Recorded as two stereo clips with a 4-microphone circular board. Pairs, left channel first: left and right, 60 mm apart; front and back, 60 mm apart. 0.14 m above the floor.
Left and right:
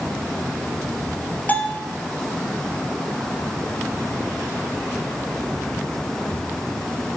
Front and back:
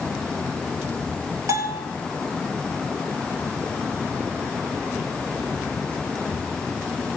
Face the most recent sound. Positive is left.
turn(degrees=150)